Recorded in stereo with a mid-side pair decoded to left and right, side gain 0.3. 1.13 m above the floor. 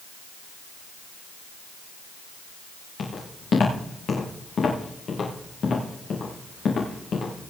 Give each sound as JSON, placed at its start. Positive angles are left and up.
{"t": 3.0, "sound": "footsteps", "azimuth_deg": 70, "distance_m": 6.0}